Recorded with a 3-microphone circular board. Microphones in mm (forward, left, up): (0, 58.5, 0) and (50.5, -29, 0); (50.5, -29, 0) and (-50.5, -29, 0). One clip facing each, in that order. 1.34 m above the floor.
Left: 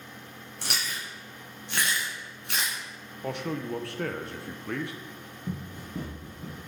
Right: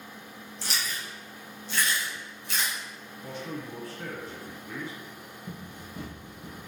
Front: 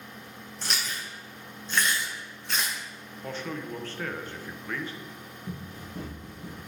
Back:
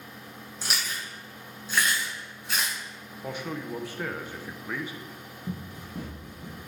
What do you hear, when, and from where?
0.6 s chewing: 95° left, 1.6 m
3.2 s a man speaking: 100° left, 0.6 m
5.5 s running footsteps: 120° left, 2 m; by 6.6 s 90° left, 2.0 m